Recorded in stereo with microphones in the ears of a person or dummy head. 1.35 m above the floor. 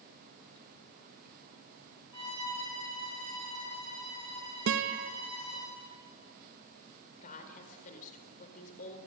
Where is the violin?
25° left (ahead or behind), 9.5 m.